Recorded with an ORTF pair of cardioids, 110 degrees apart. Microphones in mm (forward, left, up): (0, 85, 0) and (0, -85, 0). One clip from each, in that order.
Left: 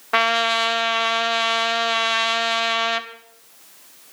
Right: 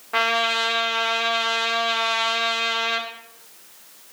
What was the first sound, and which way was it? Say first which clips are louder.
A trumpet: left 2 dB; 40° left.